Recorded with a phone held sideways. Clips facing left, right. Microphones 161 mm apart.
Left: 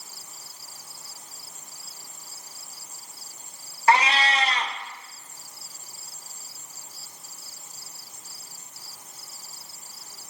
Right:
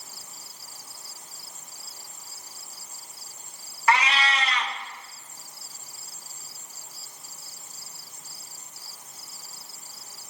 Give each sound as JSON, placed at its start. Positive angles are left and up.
{"t": 3.9, "sound": "a cat meowing", "side_deg": 30, "distance_m": 0.5}